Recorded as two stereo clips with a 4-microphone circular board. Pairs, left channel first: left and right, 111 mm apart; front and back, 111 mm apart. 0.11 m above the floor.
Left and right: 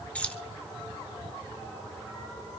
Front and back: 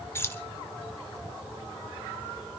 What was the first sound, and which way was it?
Keys jangling, 25° left.